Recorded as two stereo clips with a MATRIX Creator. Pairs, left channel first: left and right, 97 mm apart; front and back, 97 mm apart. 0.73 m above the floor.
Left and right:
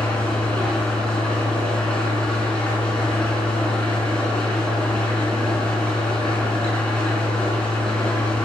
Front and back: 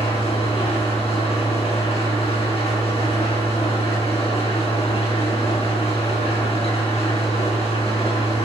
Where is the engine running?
10° left, 5.5 m.